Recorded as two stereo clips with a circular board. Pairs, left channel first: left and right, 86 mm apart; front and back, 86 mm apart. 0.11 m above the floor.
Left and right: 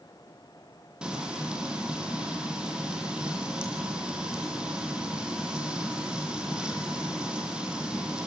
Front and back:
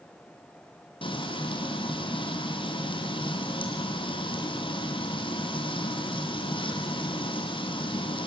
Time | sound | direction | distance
1.0 | frying | 10° right | 3.5 m